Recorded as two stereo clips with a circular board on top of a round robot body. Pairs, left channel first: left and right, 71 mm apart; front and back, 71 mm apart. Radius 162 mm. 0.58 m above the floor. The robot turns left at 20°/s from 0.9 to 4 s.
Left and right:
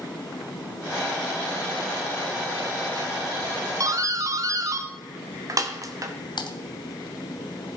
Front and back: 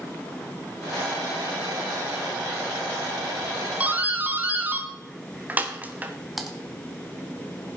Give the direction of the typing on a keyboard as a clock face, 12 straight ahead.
9 o'clock.